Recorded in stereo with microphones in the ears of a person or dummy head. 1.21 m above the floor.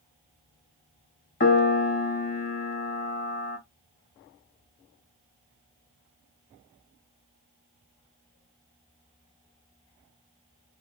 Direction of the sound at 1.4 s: 35° left (ahead or behind).